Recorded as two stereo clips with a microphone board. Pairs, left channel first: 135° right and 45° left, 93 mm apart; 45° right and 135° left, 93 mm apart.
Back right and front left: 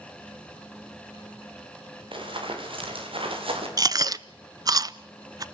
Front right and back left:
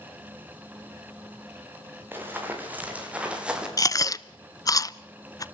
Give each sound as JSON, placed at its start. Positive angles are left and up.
{"t": 2.1, "sound": "running footsteps", "azimuth_deg": 70, "distance_m": 6.5}
{"t": 3.8, "sound": "chewing", "azimuth_deg": 0, "distance_m": 0.6}